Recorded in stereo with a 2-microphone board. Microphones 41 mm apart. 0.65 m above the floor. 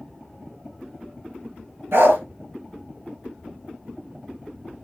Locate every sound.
1.9 s a dog barking: 85° right, 5 m